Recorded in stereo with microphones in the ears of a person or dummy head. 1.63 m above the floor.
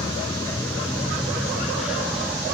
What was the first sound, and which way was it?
A vehicle, 20° left (ahead or behind).